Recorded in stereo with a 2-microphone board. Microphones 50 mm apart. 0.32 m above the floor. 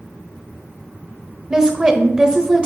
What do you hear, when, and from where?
1.5 s a woman speaking: 15° right (ahead or behind), 0.9 m